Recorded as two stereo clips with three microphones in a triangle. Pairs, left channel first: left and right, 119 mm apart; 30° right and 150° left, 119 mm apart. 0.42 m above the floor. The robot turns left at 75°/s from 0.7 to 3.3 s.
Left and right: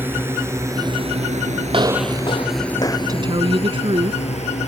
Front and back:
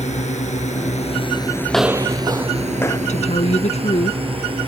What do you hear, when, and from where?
0.0 s a drone: 20° right; by 4.7 s 110° left
1.7 s footsteps: 105° right; by 3.0 s 25° left
3.1 s a woman speaking: 30° right; by 4.2 s 50° right